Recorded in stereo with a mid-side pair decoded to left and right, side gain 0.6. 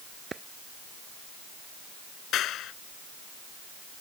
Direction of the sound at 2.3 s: 55° left.